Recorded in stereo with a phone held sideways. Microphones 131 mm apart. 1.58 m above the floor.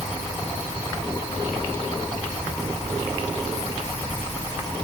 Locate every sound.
Only background noise.